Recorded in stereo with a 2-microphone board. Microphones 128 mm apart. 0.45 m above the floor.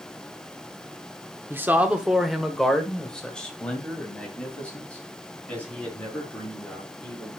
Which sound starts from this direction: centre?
A man speaking, at 1.5 s.